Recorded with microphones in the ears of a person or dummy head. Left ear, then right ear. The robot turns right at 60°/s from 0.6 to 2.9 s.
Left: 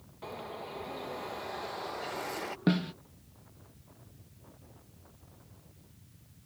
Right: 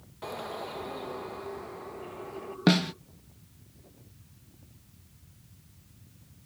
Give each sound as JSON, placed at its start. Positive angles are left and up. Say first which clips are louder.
{"t": 0.2, "sound": "a bird", "louder": "right 5 dB", "azimuth_deg": -20}
{"t": 2.7, "sound": "a snare drum", "louder": "right 8 dB", "side_deg": -35}